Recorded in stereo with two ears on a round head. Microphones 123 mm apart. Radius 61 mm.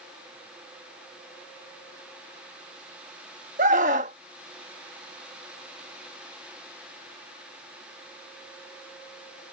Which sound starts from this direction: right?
A scream, at 3.6 s.